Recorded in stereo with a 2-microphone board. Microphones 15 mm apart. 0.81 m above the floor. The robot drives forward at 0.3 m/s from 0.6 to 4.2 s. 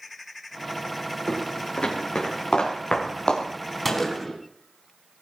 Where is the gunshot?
15° left (ahead or behind), 4 m.